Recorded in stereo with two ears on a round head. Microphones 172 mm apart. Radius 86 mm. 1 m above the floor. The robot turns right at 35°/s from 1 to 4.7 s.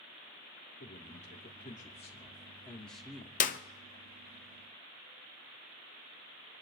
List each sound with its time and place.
0.8 s a man speaking: 110° left, 3 m; by 3.3 s 170° right, 3 m
3.4 s a clap: 40° left (ahead or behind), 0.7 m; by 3.6 s 45° left (ahead or behind), 0.7 m